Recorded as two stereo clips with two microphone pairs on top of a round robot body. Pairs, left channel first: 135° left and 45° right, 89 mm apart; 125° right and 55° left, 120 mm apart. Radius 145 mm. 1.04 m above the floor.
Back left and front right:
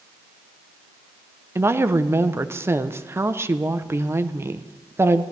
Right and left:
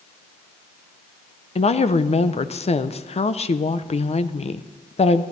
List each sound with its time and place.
1.6 s a woman speaking: 100° right, 0.7 m